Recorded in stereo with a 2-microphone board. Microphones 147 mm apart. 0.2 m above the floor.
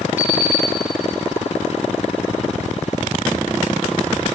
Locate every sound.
0.2 s an alarm clock: 15° right (ahead or behind), 1.2 m